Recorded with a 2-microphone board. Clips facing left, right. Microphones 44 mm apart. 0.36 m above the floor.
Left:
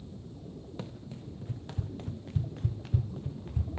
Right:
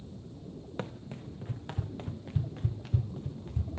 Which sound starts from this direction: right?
Running footsteps, at 0.8 s.